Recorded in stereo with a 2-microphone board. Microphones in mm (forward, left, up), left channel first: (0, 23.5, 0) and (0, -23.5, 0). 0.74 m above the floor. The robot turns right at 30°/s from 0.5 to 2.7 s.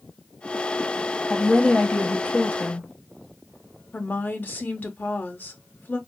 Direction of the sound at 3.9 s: 45° left (ahead or behind).